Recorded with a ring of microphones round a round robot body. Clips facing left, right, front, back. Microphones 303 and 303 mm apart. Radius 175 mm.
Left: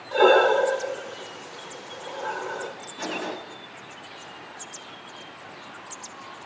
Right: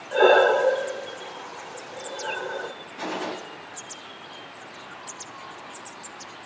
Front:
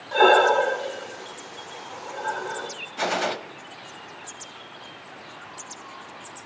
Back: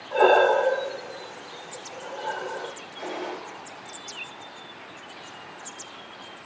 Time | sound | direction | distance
0.1 | breathing | 20° left | 1.6 m
3.0 | a gunshot | 5° right | 0.8 m